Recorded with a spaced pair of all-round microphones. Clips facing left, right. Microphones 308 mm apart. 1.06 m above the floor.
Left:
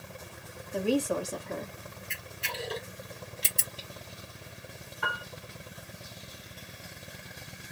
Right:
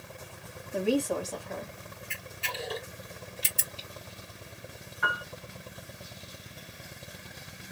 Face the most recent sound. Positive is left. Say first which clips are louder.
# right 1 dB
turn(degrees=40)  # may be behind; listen again after turning